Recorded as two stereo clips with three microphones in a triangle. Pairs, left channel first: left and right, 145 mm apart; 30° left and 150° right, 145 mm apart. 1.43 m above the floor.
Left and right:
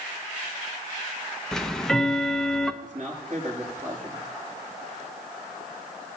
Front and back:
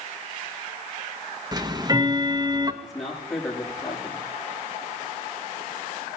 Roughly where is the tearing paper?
No tearing paper in this recording.